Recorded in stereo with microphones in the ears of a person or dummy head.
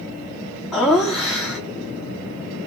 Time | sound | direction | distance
0.7 | laughter | 5° left (ahead or behind) | 0.6 m